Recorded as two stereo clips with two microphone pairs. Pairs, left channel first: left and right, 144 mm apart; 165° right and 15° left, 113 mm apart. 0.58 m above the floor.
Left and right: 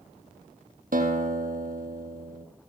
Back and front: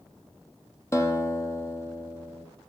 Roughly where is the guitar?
Right.